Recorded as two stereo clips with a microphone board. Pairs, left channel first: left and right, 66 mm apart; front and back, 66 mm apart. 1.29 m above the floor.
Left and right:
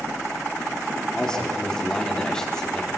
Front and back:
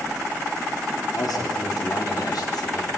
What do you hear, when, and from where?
1.1 s a man speaking: 10° left, 4.5 m